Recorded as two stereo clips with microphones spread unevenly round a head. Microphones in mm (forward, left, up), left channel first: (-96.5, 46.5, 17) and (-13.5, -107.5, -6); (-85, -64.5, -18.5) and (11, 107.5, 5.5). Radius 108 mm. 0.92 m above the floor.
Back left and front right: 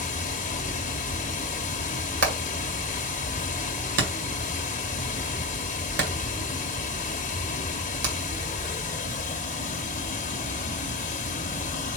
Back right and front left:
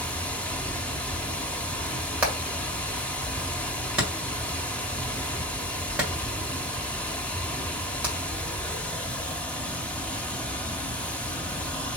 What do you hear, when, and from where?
0.0 s running water: 155° left, 0.8 m
2.2 s hammering: 25° right, 1.6 m